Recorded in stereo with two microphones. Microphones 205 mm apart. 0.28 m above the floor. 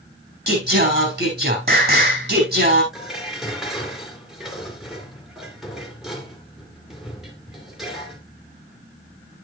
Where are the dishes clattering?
Centre (ahead or behind), 2.5 m.